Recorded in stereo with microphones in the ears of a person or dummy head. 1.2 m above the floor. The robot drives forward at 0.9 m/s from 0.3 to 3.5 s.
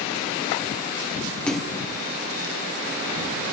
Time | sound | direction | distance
1.5 | a splash | 5° left (ahead or behind) | 0.6 m